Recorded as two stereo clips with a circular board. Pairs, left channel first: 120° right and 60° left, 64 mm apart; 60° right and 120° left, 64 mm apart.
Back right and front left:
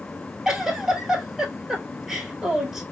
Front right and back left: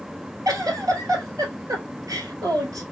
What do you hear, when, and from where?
0.5 s a giggle: 145° left, 1.3 m